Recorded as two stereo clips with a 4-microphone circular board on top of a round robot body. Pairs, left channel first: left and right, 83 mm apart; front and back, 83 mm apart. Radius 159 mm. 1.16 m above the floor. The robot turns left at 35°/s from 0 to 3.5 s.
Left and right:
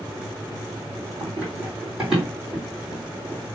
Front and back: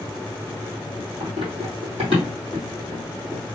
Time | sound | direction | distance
1.2 | running footsteps | 155° right | 2.5 m